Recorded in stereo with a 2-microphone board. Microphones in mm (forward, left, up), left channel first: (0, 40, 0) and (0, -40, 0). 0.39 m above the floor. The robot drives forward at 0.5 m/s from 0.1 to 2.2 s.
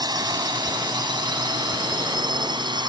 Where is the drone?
55° right (ahead or behind); by 2.9 s 70° right (ahead or behind).